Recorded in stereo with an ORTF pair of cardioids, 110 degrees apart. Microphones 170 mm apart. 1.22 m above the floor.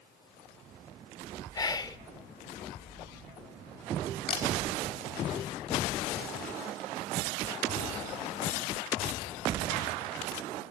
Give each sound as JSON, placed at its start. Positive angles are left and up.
{"t": 1.5, "sound": "whispering", "azimuth_deg": 20, "distance_m": 0.8}
{"t": 4.3, "sound": "a camera shutter", "azimuth_deg": 60, "distance_m": 4.0}